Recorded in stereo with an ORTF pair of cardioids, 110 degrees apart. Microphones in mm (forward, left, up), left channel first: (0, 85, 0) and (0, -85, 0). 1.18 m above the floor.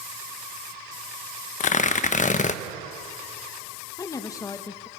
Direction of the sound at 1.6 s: 45° left.